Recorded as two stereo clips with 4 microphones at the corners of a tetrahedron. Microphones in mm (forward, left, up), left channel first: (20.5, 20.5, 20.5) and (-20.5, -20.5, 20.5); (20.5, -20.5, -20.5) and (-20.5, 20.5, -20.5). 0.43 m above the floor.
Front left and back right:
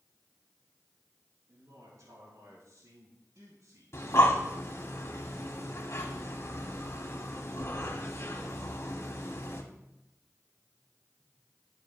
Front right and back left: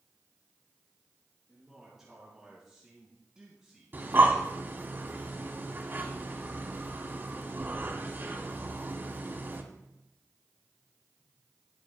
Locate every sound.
1.5 s a man speaking: 140° right, 4.5 m; by 4.0 s 145° right, 3 m
3.9 s breathing: 85° left, 1.6 m